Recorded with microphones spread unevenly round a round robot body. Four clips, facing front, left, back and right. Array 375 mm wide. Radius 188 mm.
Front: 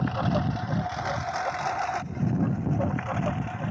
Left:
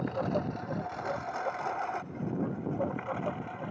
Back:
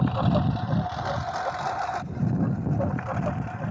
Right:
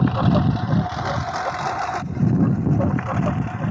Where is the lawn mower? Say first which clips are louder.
Right 12 dB, back 2 dB; 100° right; by 3.7 s 85° right.